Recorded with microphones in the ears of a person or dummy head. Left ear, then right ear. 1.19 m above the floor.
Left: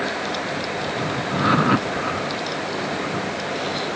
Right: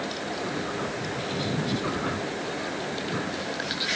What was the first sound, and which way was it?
Only background noise.